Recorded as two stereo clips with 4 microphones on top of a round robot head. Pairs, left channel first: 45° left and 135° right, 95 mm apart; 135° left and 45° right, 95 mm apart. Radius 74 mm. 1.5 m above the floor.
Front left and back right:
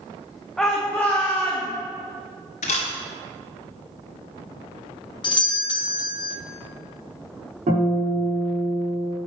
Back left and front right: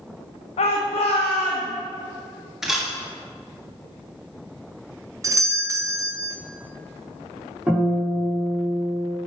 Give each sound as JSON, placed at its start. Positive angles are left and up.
{"t": 0.6, "sound": "a shout", "azimuth_deg": 130, "distance_m": 1.1}
{"t": 2.6, "sound": "a camera shutter", "azimuth_deg": 40, "distance_m": 1.4}
{"t": 5.2, "sound": "a doorbell", "azimuth_deg": 10, "distance_m": 0.8}
{"t": 7.7, "sound": "a guitar", "azimuth_deg": -125, "distance_m": 4.0}